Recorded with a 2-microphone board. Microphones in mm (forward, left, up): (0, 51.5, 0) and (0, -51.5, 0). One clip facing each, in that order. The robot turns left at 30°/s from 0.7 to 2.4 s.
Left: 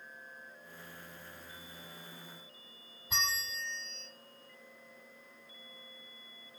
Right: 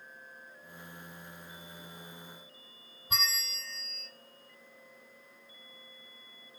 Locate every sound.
3.1 s a bell: 65° right (ahead or behind), 2 m